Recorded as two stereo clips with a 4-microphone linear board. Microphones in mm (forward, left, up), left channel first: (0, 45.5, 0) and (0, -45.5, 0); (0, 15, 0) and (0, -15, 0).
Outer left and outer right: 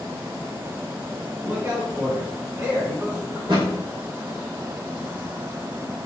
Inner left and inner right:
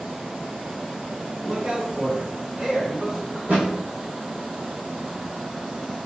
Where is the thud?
60° right (ahead or behind), 2.0 m.